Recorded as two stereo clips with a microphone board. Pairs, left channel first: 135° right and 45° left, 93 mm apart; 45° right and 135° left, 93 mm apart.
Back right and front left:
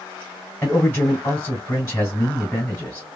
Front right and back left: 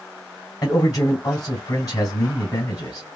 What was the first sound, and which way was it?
A man speaking, 75° right.